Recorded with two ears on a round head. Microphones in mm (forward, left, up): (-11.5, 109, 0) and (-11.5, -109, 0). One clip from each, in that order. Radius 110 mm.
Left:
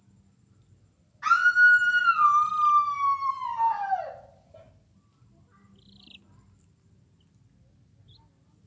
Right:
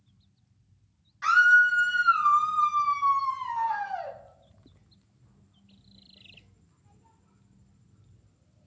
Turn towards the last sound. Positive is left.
turn(degrees=-75)  # may be behind; listen again after turning